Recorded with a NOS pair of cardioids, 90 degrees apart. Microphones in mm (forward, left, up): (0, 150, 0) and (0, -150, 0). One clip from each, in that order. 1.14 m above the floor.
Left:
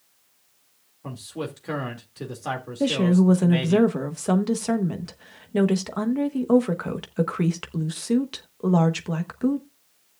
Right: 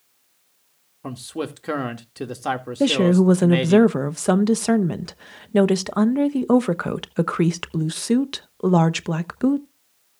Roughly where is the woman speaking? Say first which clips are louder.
Right 4 dB; ahead right.